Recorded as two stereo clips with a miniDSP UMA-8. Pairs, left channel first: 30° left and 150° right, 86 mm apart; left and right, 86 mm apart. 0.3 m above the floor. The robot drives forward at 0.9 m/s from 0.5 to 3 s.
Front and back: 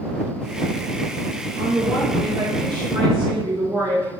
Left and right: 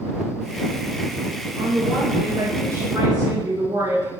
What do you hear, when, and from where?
1.6 s a woman speaking: 120° right, 3.5 m; by 4.1 s 135° right, 4.5 m